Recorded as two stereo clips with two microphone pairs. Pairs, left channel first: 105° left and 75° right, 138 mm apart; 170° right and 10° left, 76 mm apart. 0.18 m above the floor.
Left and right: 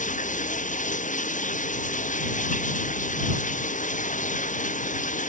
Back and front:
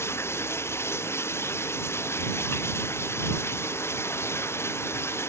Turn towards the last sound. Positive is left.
turn(degrees=130)